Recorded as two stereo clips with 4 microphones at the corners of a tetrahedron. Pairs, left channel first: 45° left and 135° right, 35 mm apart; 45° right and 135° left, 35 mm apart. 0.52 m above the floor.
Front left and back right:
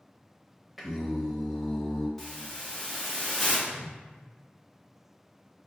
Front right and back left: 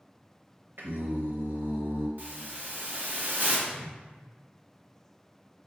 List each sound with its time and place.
0.8 s singing: 140° left, 0.7 m
2.2 s a hiss: 125° left, 1.0 m
3.7 s a whoosh: 100° right, 1.5 m